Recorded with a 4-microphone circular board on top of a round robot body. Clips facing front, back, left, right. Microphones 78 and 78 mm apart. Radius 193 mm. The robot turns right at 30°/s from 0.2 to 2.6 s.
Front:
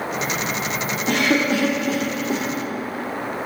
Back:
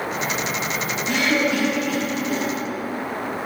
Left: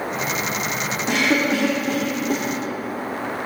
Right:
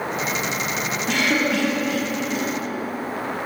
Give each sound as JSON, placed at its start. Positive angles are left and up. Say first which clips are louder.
{"t": 1.1, "sound": "a cough", "louder": "front 2 dB, left 2 dB", "azimuth_deg": 20, "distance_m": 1.7}